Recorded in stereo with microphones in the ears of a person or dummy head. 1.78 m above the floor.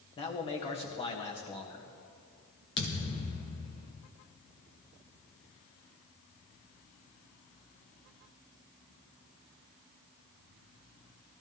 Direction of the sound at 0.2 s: 35° left (ahead or behind).